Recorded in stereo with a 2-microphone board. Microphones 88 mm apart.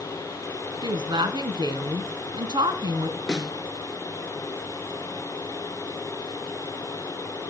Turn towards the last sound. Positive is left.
turn(degrees=5)  # may be behind; listen again after turning